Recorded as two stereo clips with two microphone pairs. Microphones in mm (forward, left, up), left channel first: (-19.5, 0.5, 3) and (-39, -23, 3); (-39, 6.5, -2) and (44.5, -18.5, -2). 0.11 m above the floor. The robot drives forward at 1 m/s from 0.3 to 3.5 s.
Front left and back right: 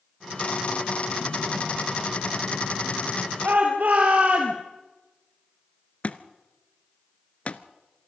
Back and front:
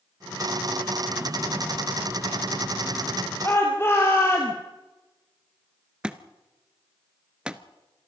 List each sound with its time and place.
3.4 s a shout: 135° right, 2.5 m; by 4.5 s 140° right, 2.5 m
6.0 s a thud: 55° left, 0.9 m